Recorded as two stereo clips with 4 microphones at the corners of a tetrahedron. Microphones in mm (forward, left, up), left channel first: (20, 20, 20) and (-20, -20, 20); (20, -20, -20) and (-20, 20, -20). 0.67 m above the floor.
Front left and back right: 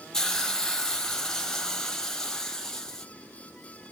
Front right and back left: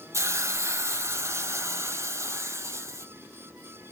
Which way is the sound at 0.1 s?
125° left.